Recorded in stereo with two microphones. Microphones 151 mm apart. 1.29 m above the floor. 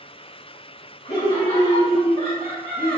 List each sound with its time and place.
1.1 s laughter: 45° left (ahead or behind), 3 m; by 3.0 s 35° left (ahead or behind), 1.7 m